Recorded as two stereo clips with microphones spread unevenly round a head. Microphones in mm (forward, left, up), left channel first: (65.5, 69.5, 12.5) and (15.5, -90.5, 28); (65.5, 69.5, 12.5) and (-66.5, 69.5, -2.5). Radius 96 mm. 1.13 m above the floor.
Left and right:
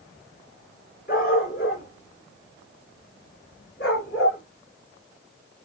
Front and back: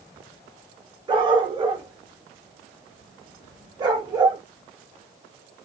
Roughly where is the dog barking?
Behind left.